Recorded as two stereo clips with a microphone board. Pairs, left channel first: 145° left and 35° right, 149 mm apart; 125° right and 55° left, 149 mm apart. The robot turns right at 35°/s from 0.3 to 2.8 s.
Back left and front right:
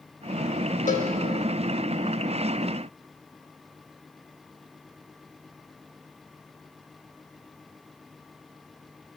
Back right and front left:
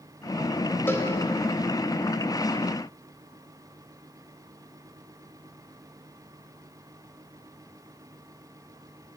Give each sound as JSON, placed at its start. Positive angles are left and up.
{"t": 0.9, "sound": "a cowbell", "azimuth_deg": 160, "distance_m": 0.6}